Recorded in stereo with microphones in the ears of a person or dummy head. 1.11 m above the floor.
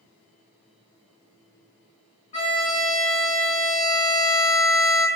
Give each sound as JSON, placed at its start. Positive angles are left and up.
{"t": 2.3, "sound": "a violin", "side_deg": 35, "distance_m": 1.9}